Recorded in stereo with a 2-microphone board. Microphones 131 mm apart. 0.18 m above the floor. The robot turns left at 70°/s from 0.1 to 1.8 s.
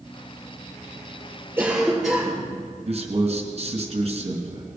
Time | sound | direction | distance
1.6 | a cough | 15° right (ahead or behind) | 6 m
2.9 | a man speaking | 55° right (ahead or behind) | 2.5 m